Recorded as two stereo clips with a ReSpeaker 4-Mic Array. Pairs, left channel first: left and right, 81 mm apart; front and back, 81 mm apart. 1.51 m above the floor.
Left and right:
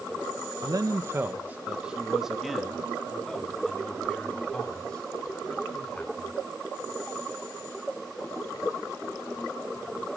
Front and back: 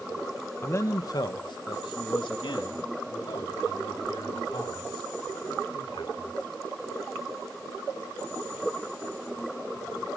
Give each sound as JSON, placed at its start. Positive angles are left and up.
{"t": 0.6, "sound": "a man speaking", "azimuth_deg": -55, "distance_m": 1.0}